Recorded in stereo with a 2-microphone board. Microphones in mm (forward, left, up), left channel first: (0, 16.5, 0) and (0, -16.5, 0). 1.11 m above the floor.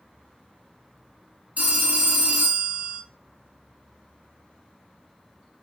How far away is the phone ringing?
About 0.8 m.